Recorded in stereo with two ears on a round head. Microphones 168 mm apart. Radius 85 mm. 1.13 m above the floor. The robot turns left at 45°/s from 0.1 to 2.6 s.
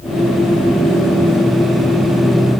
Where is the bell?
I don't hear a bell.